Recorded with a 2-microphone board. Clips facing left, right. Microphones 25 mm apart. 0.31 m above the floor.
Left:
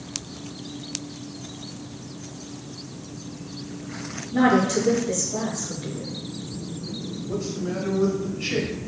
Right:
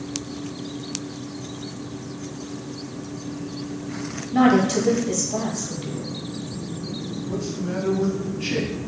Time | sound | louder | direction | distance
4.3 | a woman speaking | right 2 dB | 25° right (ahead or behind) | 1.5 m
7.3 | a man speaking | even | 20° left (ahead or behind) | 1.0 m